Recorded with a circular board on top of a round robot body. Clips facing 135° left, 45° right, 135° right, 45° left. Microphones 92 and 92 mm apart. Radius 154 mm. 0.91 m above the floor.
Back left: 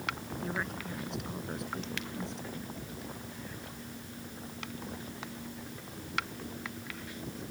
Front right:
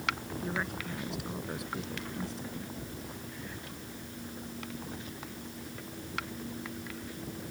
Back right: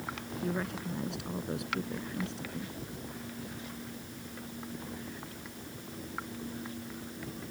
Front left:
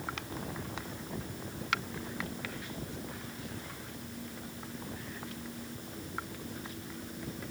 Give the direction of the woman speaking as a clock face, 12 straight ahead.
4 o'clock.